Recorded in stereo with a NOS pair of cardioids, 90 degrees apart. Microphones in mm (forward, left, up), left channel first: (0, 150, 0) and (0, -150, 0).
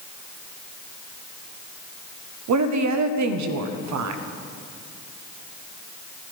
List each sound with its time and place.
2.5 s a woman speaking: 65° right, 1.0 m